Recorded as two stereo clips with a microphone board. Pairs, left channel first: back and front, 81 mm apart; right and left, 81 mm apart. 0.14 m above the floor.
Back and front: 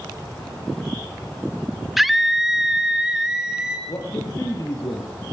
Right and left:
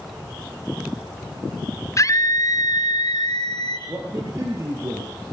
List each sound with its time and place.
2.0 s a scream: 85° right, 1.9 m; by 3.8 s 80° right, 3.5 m
3.9 s a man speaking: 135° left, 4.5 m